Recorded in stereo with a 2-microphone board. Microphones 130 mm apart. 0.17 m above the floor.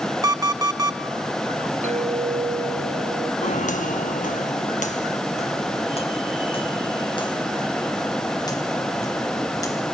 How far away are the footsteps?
About 1.2 m.